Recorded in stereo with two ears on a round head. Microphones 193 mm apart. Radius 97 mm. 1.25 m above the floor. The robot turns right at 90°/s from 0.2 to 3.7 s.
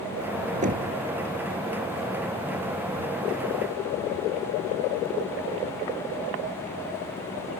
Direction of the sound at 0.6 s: 35° right (ahead or behind).